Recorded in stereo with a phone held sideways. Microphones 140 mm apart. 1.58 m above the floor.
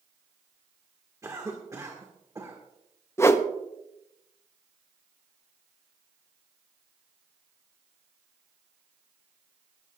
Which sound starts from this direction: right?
A cough, at 1.2 s.